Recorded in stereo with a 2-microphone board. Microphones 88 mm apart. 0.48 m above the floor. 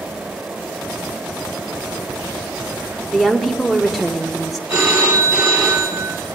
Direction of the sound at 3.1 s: Centre (ahead or behind).